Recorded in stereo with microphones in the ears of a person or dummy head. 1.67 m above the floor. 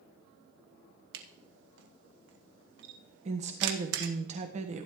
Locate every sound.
1.1 s a camera shutter: 70° right (ahead or behind), 1.7 m
3.2 s a woman speaking: 35° right (ahead or behind), 1.3 m